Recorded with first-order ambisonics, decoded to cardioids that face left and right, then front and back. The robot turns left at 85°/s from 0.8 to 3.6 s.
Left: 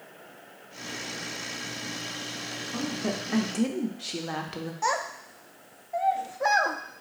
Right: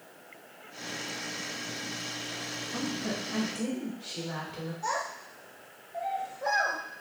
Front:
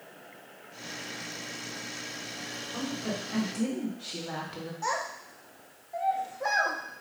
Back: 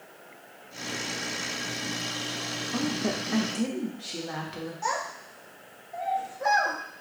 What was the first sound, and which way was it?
A woman speaking, 170° left.